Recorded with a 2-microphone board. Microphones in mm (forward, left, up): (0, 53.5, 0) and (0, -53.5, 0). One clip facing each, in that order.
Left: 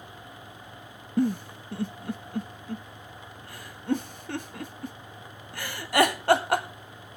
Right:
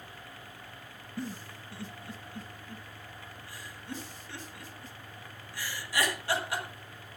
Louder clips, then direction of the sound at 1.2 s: Left 14 dB; 60° left (ahead or behind).